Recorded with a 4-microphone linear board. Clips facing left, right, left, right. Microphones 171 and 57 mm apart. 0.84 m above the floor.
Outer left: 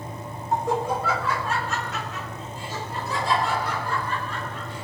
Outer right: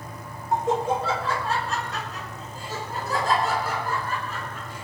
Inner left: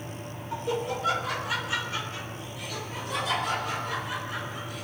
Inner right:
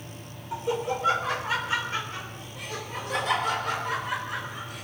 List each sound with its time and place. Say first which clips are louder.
0.5 s laughter: outer right 1 dB, inner right 2 dB; 15° right (ahead or behind), 1.4 m; by 4.8 s 50° right (ahead or behind), 5 m